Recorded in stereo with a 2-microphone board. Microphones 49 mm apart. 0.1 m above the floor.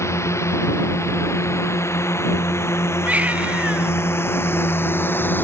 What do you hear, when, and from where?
0.0 s a drone: 70° left (ahead or behind); by 5.4 s 45° left (ahead or behind)
3.0 s a baby crying: 30° right (ahead or behind)